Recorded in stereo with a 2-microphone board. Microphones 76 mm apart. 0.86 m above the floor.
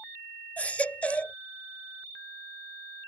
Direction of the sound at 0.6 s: 20° left (ahead or behind).